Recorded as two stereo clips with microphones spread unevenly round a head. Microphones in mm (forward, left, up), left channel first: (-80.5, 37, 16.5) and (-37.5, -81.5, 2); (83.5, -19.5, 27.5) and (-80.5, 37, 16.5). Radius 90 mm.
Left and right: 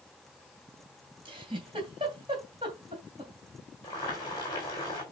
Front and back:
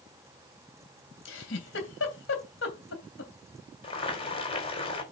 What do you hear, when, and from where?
1.2 s a giggle: 5° right, 3 m
3.8 s boiling: 40° left, 4 m